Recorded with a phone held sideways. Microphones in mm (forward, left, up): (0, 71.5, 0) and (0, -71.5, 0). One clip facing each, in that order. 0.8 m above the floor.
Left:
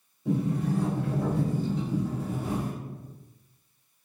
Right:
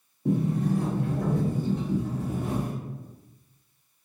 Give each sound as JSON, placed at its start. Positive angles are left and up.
{"t": 0.2, "sound": "a sliding door", "side_deg": -60, "distance_m": 1.1}